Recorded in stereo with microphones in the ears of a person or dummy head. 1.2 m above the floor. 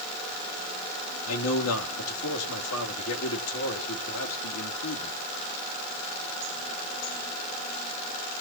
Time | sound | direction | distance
1.3 | a man speaking | 80° left | 3 m